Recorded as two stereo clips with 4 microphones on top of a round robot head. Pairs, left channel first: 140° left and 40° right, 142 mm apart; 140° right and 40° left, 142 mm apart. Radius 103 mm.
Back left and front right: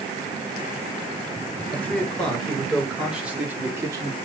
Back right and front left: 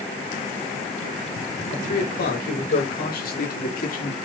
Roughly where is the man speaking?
Behind right.